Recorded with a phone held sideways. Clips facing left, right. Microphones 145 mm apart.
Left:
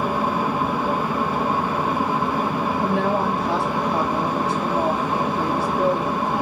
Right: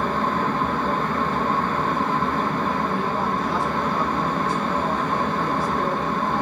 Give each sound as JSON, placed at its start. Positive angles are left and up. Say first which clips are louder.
{"t": 0.0, "sound": "a fan", "louder": "left 1 dB", "side_deg": 10, "distance_m": 0.9}
{"t": 2.8, "sound": "a woman speaking", "louder": "left 3 dB", "side_deg": 85, "distance_m": 5.0}